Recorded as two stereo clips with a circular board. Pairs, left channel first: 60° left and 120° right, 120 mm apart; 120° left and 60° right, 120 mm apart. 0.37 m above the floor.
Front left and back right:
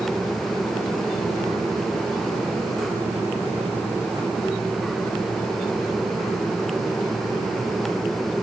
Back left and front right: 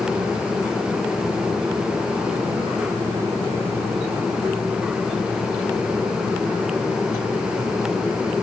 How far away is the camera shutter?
I don't hear a camera shutter.